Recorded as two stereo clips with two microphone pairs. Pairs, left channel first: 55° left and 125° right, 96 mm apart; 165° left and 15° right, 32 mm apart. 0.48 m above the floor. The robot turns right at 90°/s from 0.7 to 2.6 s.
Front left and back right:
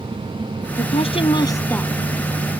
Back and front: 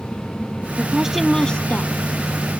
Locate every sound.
0.8 s a woman speaking: 35° left; by 1.9 s 140° left